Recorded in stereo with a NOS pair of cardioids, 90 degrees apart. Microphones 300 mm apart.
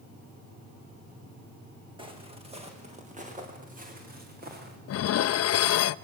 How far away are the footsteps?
About 5.5 m.